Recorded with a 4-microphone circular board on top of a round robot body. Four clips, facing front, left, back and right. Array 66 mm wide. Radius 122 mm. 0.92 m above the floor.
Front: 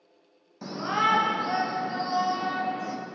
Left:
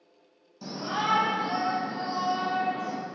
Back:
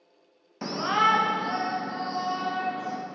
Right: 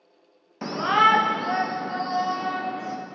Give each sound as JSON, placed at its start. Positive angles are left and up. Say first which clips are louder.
{"t": 0.6, "sound": "a shout", "louder": "right 11 dB, back 2 dB", "azimuth_deg": -120, "distance_m": 0.6}